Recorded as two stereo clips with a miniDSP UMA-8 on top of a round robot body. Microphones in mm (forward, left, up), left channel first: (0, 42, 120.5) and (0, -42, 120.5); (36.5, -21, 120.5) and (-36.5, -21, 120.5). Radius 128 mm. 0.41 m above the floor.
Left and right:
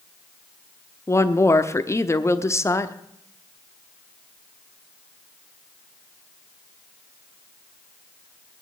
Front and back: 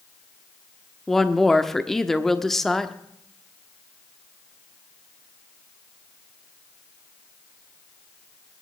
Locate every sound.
1.1 s a woman speaking: 85° left, 1.2 m